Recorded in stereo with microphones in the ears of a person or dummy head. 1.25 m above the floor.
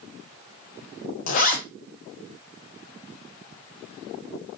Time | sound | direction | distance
1.3 | a zipper | 45° left (ahead or behind) | 0.7 m